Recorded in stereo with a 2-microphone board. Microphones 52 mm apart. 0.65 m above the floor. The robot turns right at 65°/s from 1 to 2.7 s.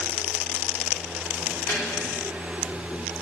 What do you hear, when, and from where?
1.7 s a snare drum: 55° left (ahead or behind), 2 m; by 1.8 s 60° left (ahead or behind), 2 m